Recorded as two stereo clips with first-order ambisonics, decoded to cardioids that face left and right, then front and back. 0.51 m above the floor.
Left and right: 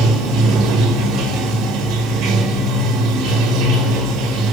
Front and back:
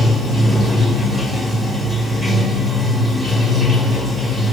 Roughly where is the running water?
Right.